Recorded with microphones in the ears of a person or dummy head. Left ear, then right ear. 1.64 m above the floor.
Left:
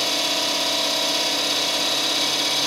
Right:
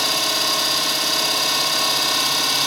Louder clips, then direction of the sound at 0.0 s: Right 2 dB; 55° right (ahead or behind).